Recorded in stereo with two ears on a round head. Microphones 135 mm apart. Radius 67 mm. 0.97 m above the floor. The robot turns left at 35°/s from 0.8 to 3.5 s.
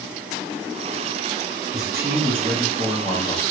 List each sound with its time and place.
1.7 s a man speaking: 145° right, 0.9 m; by 3.4 s 155° left, 0.9 m